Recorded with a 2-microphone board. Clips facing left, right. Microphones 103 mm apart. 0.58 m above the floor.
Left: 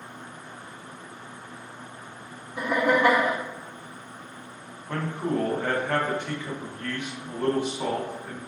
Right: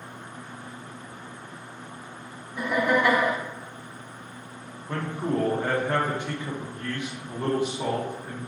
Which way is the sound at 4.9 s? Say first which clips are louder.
Even; 15° right (ahead or behind).